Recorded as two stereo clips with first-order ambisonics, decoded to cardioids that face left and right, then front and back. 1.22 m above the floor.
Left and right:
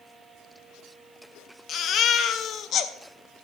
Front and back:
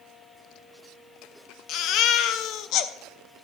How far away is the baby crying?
About 0.6 m.